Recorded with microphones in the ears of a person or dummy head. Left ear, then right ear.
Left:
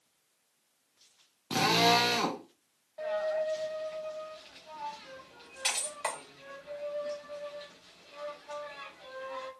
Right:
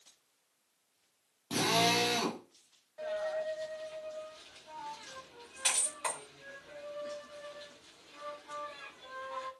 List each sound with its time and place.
1.5 s a drill: 20° left (ahead or behind), 0.5 m
3.0 s a dropped coin: 10° left (ahead or behind), 0.9 m